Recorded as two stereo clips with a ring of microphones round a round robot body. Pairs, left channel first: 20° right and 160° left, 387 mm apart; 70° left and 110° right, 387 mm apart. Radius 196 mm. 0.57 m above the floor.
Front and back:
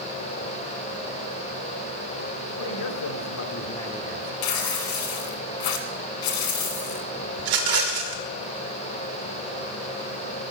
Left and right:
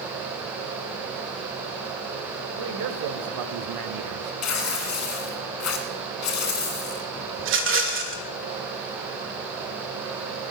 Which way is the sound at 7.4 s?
170° right.